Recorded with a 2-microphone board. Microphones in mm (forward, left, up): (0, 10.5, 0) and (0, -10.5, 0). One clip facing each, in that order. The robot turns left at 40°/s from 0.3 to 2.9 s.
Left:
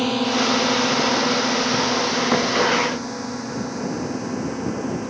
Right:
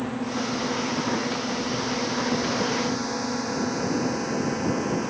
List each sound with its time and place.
0.0 s a drone: 65° left (ahead or behind); by 5.1 s 15° right (ahead or behind)